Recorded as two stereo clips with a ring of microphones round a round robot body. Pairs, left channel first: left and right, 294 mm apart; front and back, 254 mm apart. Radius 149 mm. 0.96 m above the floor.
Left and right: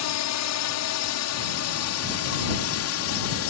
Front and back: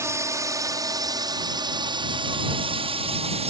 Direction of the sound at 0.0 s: 105° left.